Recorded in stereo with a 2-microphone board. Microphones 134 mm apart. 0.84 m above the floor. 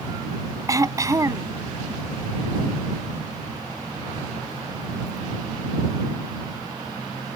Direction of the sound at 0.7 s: 25° right (ahead or behind).